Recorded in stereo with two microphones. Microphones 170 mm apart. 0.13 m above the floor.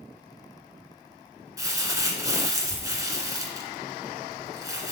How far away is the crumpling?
About 1.5 m.